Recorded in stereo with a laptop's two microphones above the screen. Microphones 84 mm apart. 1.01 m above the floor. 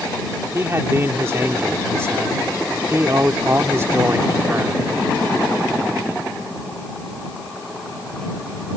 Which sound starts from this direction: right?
A man speaking, at 0.5 s.